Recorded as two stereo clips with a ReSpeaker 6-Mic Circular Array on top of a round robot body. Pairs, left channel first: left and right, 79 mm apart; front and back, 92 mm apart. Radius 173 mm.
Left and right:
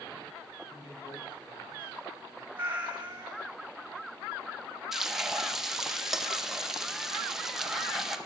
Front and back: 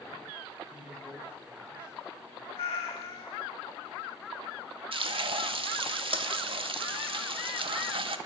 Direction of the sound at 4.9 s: 175° right.